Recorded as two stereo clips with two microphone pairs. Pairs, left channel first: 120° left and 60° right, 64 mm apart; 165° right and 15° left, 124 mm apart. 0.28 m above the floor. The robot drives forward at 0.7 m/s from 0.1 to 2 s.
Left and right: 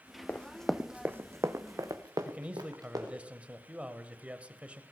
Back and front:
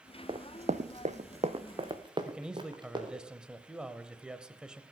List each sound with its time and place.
0.3 s running footsteps: 60° left, 1.0 m; by 3.2 s 40° right, 3.5 m
2.2 s a man speaking: 55° right, 1.1 m